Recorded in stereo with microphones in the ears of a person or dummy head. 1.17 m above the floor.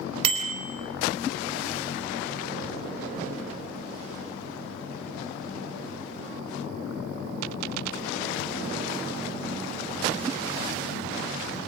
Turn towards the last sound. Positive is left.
turn(degrees=-35)  # may be behind; listen again after turning